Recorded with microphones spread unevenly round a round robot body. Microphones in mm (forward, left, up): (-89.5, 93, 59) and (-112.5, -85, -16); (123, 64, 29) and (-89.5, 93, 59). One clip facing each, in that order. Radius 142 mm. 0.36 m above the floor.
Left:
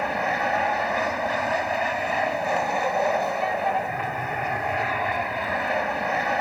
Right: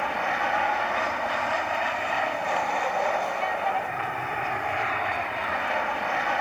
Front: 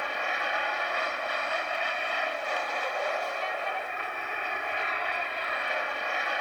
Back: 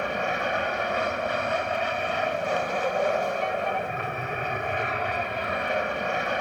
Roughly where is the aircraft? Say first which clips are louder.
Left 3 dB, back 7 dB; behind left.